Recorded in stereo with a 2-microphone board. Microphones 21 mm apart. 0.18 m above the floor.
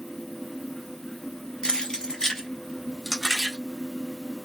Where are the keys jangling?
40° left (ahead or behind), 1.1 m; by 3.6 s 5° left (ahead or behind), 1.3 m.